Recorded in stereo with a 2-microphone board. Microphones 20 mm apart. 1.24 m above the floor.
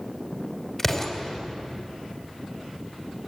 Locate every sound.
0.8 s an explosion: 15° left (ahead or behind), 2.5 m